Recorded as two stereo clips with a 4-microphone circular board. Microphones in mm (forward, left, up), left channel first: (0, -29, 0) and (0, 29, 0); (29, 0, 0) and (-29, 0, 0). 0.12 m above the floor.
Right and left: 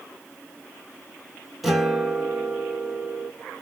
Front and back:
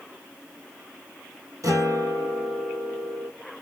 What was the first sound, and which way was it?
A guitar, 175° left.